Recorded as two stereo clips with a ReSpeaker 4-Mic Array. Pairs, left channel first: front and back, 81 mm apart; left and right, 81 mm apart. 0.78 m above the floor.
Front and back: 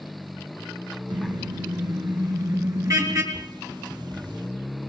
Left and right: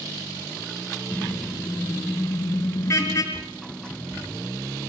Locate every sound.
1.1 s a car horn: 165° left, 5 m; by 3.2 s 135° left, 5.5 m
3.3 s a bird: 170° left, 2.5 m